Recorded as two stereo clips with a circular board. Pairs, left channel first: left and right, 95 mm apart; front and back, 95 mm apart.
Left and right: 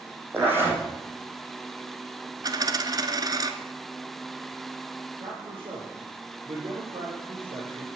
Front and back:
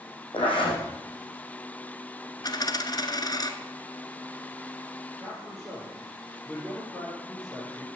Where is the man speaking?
85° right, 6.5 m.